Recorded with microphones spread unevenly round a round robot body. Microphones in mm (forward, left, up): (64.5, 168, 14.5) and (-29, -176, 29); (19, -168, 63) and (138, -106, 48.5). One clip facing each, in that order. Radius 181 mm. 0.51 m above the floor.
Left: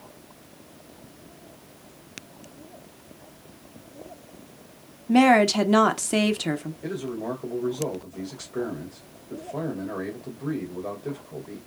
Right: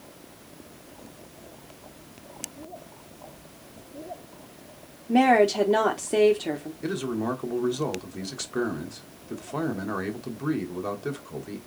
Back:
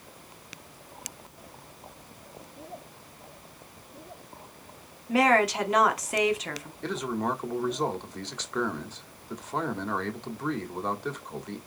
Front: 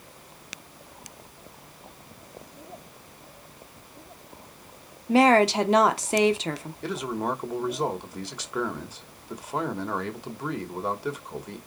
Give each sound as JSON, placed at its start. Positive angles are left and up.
{"t": 5.1, "sound": "a woman speaking", "azimuth_deg": 50, "distance_m": 0.9}
{"t": 6.8, "sound": "a man speaking", "azimuth_deg": -50, "distance_m": 2.0}